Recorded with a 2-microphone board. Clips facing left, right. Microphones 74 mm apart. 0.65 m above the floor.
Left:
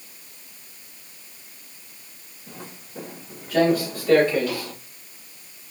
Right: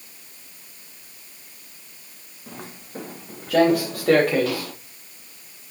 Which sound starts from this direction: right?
Footsteps, at 2.5 s.